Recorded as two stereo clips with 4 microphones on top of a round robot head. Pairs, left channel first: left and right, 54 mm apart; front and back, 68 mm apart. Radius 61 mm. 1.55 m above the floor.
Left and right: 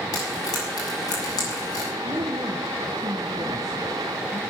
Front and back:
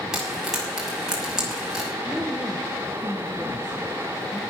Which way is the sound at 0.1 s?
100° left.